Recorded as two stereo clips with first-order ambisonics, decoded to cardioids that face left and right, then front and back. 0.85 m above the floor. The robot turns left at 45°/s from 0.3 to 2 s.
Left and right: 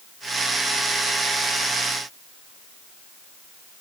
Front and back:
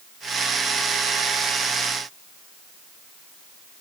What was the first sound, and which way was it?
Only background noise.